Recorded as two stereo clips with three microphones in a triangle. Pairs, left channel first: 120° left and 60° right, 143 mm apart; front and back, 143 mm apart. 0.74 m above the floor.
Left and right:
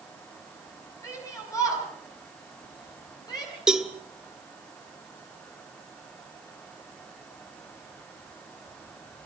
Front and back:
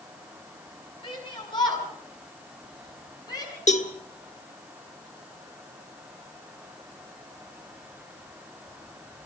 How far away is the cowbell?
About 1.6 m.